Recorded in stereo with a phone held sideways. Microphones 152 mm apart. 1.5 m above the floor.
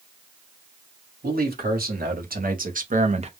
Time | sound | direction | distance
1.2 | a man speaking | 85° right | 1.4 m